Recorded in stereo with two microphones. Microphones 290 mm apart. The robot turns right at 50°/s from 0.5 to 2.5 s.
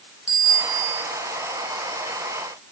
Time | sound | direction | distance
0.3 | a bicycle bell | 15° right (ahead or behind) | 5 m